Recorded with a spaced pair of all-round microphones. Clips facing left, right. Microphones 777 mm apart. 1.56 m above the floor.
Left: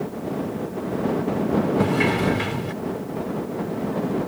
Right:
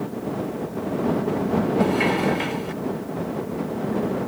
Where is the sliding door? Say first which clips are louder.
Even; 50° left (ahead or behind).